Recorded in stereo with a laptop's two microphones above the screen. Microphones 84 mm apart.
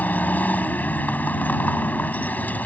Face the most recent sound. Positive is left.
turn(degrees=20)  # may be behind; listen again after turning